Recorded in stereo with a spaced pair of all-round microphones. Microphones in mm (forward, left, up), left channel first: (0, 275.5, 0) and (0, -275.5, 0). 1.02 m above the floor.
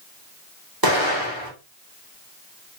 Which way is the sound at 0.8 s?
40° right (ahead or behind).